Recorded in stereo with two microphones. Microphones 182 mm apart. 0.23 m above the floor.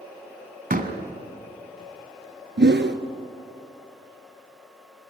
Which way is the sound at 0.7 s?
50° right (ahead or behind).